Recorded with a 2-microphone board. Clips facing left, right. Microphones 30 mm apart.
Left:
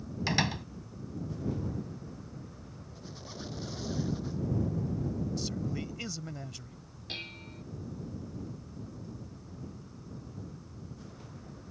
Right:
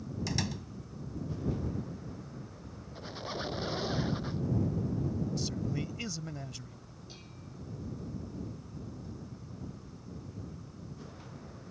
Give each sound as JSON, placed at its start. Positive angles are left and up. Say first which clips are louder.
{"t": 0.3, "sound": "a door slam", "louder": "left 7 dB", "side_deg": 45}
{"t": 3.0, "sound": "a squeak", "louder": "right 7 dB", "side_deg": -35}
{"t": 5.4, "sound": "a man speaking", "louder": "even", "side_deg": 0}
{"t": 7.1, "sound": "dishes clattering", "louder": "left 12 dB", "side_deg": 65}